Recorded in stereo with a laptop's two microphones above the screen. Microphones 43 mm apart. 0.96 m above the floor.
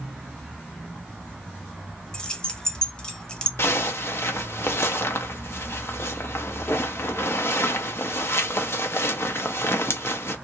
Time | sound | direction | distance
2.1 | keys jangling | 20° left (ahead or behind) | 0.7 m
3.6 | a zipper | 75° left (ahead or behind) | 0.5 m